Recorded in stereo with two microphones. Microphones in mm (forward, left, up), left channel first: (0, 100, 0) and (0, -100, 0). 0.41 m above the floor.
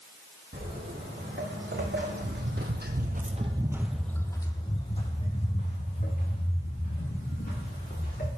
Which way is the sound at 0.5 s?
55° right (ahead or behind).